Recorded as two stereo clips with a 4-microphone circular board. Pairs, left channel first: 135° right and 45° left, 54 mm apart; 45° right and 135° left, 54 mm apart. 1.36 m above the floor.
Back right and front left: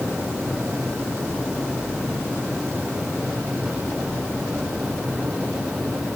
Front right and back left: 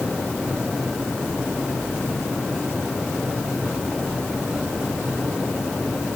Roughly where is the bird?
I don't hear a bird.